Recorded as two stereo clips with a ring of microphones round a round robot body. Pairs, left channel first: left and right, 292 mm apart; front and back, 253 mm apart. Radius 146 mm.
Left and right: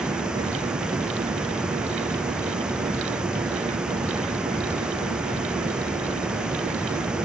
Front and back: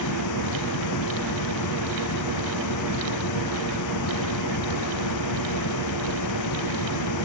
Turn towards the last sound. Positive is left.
turn(degrees=-5)